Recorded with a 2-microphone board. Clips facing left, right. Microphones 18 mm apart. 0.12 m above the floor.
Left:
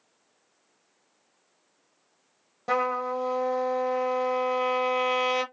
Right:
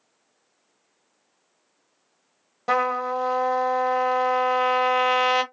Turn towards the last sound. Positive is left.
turn(degrees=-30)  # may be behind; listen again after turning